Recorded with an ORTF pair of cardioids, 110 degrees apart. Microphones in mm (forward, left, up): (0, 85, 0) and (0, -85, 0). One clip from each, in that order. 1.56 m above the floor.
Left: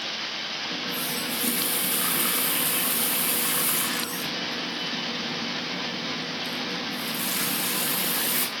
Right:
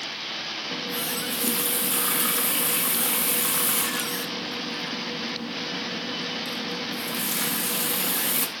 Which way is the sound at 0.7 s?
15° right.